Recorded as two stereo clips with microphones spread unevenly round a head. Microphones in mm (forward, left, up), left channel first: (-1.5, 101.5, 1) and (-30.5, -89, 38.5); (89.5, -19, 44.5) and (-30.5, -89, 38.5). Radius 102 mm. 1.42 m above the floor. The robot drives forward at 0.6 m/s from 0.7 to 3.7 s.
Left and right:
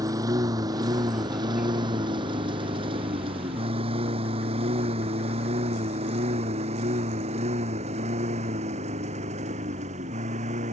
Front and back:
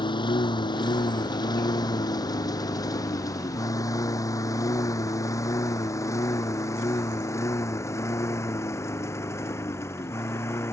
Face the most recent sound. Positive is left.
turn(degrees=-40)